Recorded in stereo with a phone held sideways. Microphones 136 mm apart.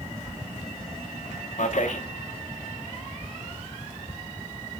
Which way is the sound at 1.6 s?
65° left (ahead or behind).